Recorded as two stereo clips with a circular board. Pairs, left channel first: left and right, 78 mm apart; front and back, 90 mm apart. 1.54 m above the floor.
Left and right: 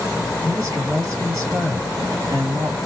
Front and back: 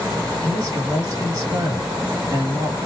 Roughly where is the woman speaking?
Behind right.